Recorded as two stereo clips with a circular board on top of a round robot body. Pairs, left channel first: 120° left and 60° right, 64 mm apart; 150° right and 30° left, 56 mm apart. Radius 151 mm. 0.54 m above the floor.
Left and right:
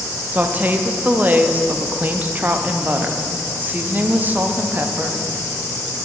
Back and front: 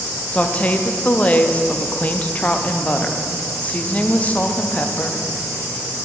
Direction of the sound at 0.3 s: 100° right.